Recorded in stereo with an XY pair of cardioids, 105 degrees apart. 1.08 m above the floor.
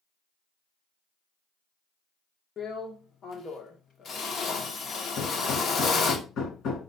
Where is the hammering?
65° left, 2.5 m.